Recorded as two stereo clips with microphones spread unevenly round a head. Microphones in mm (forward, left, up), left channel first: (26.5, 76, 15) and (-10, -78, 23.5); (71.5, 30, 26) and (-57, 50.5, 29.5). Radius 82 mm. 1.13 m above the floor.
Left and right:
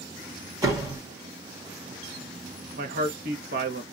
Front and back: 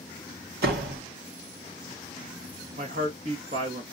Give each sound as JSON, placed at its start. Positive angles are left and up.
{"t": 0.6, "sound": "a door slam", "azimuth_deg": -175, "distance_m": 1.1}
{"t": 2.8, "sound": "a man speaking", "azimuth_deg": -140, "distance_m": 0.9}